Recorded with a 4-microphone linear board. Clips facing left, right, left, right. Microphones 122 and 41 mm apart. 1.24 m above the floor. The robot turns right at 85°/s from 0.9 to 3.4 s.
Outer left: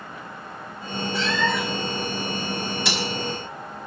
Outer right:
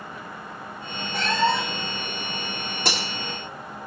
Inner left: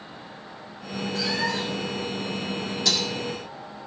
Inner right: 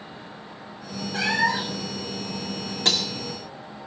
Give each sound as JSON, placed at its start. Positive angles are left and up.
{"t": 1.1, "sound": "a cat meowing", "azimuth_deg": -70, "distance_m": 0.7}
{"t": 2.9, "sound": "breaking glass", "side_deg": -50, "distance_m": 1.9}